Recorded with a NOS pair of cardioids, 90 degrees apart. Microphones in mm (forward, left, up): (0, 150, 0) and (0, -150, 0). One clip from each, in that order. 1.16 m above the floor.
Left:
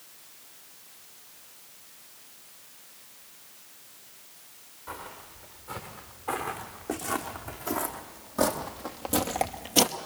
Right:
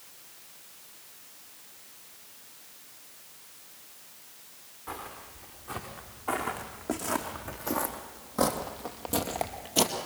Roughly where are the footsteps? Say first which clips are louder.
Even; ahead.